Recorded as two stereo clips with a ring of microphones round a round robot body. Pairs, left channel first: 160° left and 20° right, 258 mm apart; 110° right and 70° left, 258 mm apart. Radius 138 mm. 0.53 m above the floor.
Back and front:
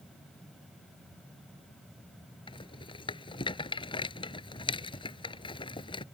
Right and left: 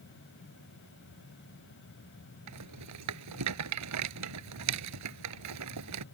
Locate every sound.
2.5 s a rattle: 85° left